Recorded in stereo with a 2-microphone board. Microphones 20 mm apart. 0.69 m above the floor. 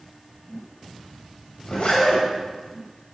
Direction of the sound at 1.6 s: 75° left (ahead or behind).